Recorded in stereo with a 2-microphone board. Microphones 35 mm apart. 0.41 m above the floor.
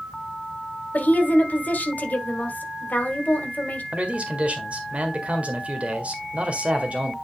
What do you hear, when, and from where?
0.9 s a woman speaking: 55° left (ahead or behind), 1.6 m
3.9 s a man speaking: 40° right (ahead or behind), 1.6 m